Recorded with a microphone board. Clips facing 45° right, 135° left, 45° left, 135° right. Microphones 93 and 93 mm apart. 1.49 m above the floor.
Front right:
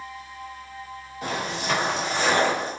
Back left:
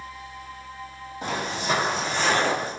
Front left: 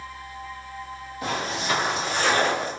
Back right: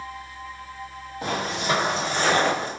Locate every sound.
1.2 s footsteps: 175° right, 1.9 m; by 2.7 s 90° right, 1.7 m